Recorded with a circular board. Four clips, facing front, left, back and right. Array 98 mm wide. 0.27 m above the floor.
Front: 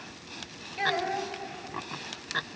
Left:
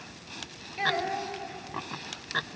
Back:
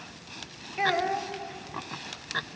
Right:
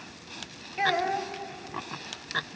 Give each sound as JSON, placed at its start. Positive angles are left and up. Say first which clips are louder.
{"t": 0.8, "sound": "a child speaking", "louder": "right 3 dB, back 3 dB", "azimuth_deg": -140, "distance_m": 0.7}